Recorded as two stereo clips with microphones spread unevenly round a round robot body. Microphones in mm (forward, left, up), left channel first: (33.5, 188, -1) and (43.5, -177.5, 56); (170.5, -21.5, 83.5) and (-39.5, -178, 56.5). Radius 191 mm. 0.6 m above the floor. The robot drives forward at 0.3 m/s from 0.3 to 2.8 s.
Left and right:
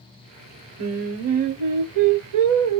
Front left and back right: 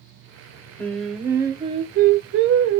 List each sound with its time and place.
0.8 s singing: 45° right, 0.6 m; by 2.8 s 115° right, 0.5 m